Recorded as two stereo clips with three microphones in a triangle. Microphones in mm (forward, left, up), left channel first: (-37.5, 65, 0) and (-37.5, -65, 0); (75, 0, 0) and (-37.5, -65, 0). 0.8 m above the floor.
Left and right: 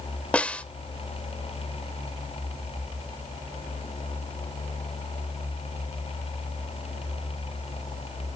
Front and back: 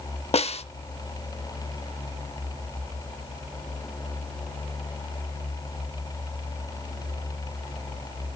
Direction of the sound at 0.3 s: 10° left.